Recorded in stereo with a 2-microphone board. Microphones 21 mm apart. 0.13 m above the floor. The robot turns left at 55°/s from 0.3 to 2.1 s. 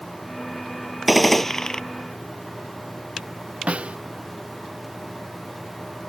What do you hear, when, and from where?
1.1 s a gunshot: 175° right; by 1.8 s 145° left
3.7 s a snare drum: 75° right (ahead or behind)